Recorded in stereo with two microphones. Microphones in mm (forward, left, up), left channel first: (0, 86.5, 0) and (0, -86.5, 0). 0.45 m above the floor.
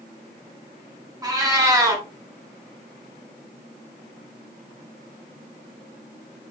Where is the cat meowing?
20° right (ahead or behind), 1.0 m.